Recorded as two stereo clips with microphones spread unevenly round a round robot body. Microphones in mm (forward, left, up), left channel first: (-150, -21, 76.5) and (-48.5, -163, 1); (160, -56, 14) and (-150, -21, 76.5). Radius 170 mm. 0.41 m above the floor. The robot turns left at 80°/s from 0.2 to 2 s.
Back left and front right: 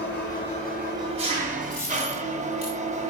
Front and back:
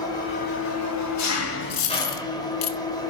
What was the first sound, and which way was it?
An engine running, 65° left.